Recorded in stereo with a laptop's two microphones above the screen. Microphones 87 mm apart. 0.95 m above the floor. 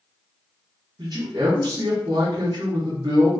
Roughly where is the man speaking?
Right.